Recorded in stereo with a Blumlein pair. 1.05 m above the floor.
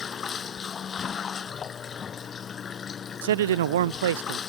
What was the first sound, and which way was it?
Running water, 20° left.